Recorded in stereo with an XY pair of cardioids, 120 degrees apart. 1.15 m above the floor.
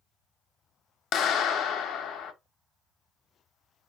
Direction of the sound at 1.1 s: 70° left.